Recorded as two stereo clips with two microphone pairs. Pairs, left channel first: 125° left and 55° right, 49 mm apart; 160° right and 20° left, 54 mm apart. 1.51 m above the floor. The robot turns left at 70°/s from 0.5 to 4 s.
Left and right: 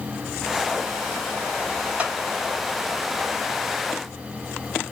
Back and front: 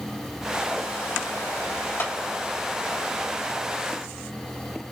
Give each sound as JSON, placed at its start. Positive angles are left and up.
{"t": 2.0, "sound": "a clap", "azimuth_deg": -120, "distance_m": 3.0}